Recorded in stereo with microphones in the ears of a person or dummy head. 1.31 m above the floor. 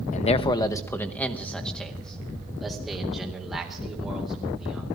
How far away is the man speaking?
About 0.5 m.